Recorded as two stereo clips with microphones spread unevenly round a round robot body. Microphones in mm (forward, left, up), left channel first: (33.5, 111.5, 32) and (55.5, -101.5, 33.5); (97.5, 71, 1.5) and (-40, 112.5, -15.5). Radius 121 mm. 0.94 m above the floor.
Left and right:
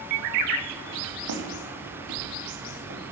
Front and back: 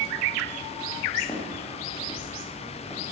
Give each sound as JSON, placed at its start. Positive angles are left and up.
{"t": 1.3, "sound": "footsteps", "azimuth_deg": -85, "distance_m": 2.5}